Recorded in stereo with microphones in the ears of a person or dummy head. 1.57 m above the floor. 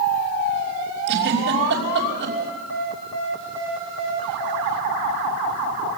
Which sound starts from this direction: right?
A giggle, at 1.1 s.